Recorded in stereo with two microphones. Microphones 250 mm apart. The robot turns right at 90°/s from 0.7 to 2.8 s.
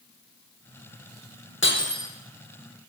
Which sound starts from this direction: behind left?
Breaking glass, at 1.6 s.